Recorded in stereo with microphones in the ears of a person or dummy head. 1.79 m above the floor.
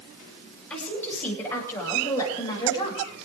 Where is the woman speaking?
5° left (ahead or behind), 9 m; by 3.0 s 25° left (ahead or behind), 8.5 m.